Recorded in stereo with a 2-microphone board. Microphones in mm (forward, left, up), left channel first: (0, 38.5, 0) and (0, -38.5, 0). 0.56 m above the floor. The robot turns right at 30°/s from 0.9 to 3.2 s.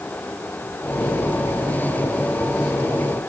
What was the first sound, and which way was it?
Only background noise.